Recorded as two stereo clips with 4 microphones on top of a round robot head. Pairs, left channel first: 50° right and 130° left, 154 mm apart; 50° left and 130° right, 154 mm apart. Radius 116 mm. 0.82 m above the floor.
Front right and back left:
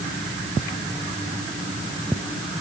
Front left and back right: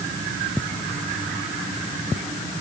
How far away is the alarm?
I don't hear an alarm.